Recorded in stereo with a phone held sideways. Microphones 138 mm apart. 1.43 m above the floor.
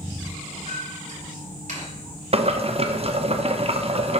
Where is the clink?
60° right (ahead or behind), 2.5 m.